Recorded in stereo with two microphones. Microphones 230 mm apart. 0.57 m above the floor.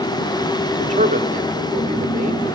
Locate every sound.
0.8 s a man speaking: 30° right (ahead or behind), 1.4 m